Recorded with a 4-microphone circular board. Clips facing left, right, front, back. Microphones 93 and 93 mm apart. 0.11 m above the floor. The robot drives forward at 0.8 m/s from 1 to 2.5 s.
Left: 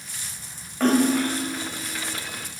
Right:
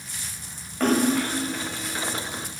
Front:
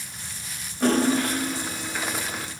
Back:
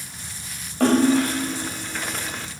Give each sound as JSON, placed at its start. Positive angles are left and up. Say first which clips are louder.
{"t": 0.8, "sound": "a splash", "louder": "left 2 dB, back 4 dB", "azimuth_deg": 180, "distance_m": 5.0}